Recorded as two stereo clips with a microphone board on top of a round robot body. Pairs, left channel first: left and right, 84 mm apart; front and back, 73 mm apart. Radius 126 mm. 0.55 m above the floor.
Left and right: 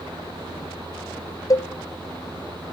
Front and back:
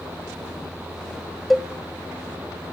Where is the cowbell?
90° left, 0.9 m.